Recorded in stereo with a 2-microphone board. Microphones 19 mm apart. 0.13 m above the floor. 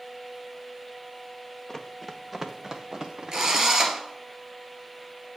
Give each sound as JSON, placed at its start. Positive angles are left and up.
{"t": 1.7, "sound": "running footsteps", "side_deg": 15, "distance_m": 1.2}
{"t": 3.3, "sound": "a drill", "side_deg": -35, "distance_m": 1.8}